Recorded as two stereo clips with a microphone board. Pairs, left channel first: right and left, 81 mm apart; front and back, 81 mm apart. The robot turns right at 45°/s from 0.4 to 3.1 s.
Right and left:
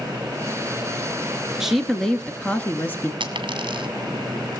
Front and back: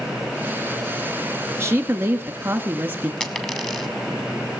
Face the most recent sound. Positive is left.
turn(degrees=85)